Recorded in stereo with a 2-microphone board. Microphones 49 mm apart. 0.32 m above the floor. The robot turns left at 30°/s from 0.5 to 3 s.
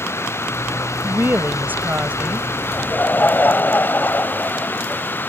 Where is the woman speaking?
95° right; by 2.5 s 140° right.